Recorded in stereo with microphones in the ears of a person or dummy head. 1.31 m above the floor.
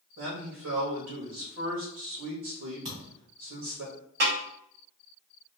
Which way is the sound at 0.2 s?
75° right (ahead or behind).